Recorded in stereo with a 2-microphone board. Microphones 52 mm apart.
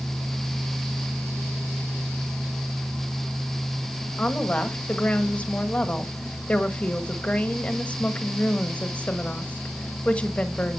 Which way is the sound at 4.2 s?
25° left (ahead or behind).